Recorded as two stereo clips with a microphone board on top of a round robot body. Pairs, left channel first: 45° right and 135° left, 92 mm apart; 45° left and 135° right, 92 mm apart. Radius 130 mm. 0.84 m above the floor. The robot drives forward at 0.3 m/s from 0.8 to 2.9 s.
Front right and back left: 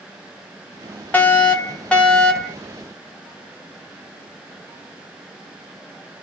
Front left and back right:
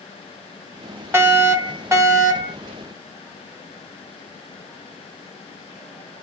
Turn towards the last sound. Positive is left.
turn(degrees=-130)